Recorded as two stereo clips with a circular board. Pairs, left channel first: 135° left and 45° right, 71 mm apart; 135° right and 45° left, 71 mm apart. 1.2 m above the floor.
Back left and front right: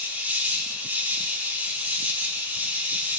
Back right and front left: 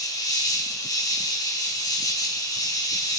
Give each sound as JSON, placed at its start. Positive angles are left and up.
{"t": 0.0, "sound": "an insect", "azimuth_deg": -110, "distance_m": 2.0}